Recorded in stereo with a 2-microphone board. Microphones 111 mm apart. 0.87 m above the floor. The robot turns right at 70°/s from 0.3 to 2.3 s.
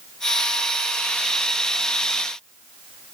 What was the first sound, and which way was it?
Only background noise.